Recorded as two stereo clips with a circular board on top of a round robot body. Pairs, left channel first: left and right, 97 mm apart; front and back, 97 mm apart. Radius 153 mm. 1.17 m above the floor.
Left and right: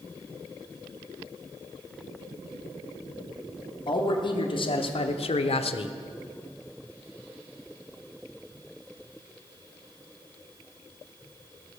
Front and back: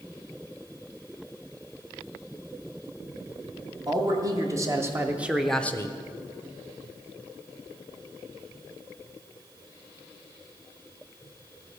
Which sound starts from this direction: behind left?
A man speaking, at 3.9 s.